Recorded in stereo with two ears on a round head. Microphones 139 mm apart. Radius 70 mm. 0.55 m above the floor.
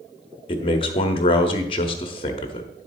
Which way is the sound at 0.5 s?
35° left (ahead or behind).